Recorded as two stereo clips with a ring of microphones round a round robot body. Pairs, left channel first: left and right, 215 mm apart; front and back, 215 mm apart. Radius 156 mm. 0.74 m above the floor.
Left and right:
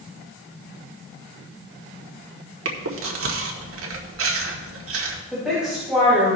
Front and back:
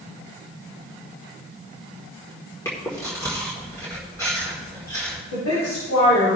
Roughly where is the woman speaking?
Ahead.